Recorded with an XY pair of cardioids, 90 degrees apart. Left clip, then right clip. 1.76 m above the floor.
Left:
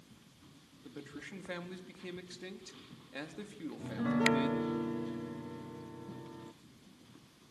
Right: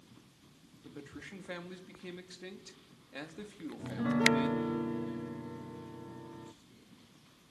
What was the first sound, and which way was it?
A man speaking, 5° left.